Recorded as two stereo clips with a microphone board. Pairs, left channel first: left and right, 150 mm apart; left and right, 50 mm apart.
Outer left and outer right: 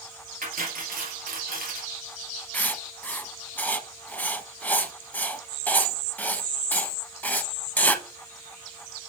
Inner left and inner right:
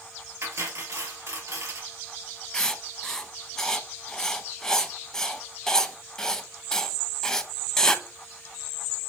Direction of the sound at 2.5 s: 10° left (ahead or behind).